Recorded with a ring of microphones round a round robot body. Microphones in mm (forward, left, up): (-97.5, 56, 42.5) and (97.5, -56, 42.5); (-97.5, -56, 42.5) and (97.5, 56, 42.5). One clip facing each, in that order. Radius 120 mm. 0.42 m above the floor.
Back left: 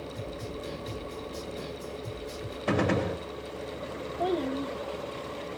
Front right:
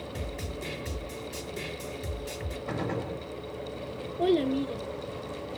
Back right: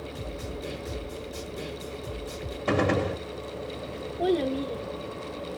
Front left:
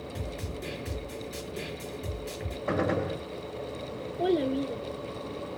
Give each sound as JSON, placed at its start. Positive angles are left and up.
{"t": 0.1, "sound": "a snare drum", "azimuth_deg": -30, "distance_m": 3.0}
{"t": 2.7, "sound": "a gunshot", "azimuth_deg": 165, "distance_m": 0.7}
{"t": 4.2, "sound": "a child speaking", "azimuth_deg": -55, "distance_m": 0.7}